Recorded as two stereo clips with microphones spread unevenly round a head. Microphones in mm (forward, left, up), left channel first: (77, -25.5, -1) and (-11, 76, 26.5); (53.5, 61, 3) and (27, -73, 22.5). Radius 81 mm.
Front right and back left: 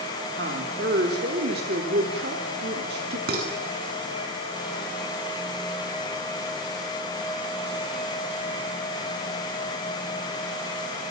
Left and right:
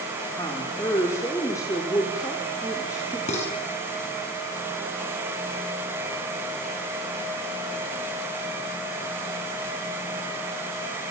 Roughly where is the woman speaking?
Behind left.